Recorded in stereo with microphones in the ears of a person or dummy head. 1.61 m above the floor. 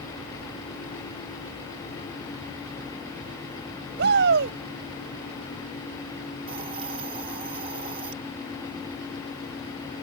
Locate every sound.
4.0 s a shout: 65° right (ahead or behind)
6.5 s a hiss: 35° right (ahead or behind)